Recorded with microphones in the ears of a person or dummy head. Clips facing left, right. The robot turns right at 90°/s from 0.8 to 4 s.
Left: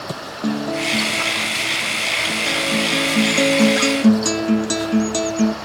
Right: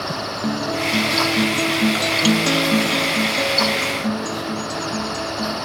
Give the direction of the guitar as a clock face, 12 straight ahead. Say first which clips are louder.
Left 2 dB; 6 o'clock.